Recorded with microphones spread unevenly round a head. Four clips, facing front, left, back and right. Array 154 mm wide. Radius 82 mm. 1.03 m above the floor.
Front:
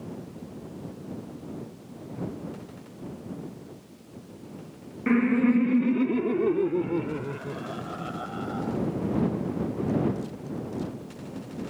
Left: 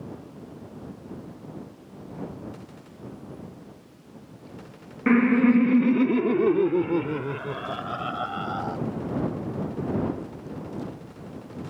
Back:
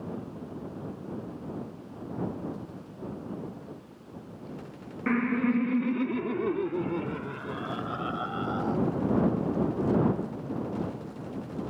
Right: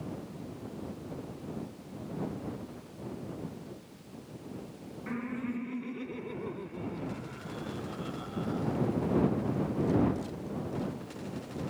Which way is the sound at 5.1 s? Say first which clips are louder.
Left 18 dB, front 5 dB; 65° left.